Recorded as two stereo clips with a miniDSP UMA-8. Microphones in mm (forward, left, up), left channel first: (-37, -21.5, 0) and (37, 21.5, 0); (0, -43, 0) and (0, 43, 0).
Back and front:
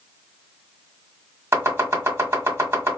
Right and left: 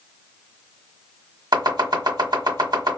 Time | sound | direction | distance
1.5 | chopping | 85° left | 1.6 m